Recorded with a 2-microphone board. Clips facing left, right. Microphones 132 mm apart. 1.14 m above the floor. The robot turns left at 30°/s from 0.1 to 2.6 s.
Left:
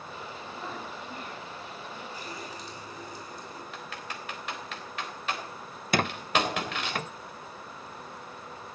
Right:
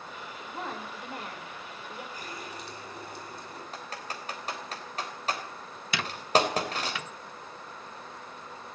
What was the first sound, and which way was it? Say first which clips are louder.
A woman speaking: right 3 dB; 75° right.